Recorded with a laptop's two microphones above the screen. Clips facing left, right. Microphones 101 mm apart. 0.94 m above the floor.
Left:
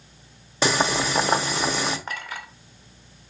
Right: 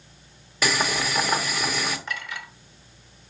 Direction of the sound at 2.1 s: 40° left (ahead or behind).